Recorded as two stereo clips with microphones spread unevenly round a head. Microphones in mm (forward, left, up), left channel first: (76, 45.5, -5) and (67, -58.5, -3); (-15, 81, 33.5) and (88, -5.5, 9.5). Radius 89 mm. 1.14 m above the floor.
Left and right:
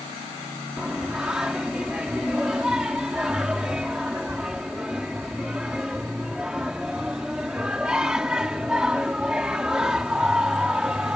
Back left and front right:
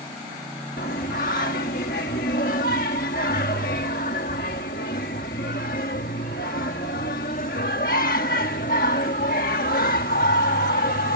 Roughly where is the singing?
Behind.